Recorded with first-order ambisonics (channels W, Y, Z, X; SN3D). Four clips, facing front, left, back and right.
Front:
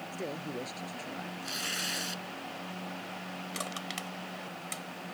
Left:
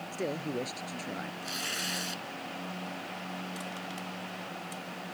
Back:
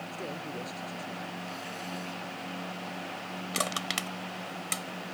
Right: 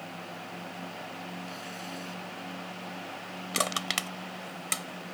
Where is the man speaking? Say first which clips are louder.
Left 7 dB, front 1 dB; 80° left.